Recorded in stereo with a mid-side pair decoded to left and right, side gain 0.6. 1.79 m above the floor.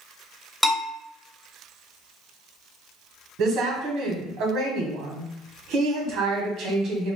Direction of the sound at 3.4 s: 60° right.